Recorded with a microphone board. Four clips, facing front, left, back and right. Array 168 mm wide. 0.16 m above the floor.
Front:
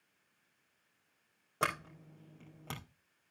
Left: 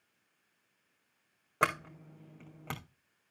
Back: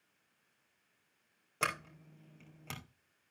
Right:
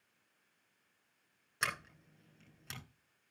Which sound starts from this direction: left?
A sliding door, at 1.6 s.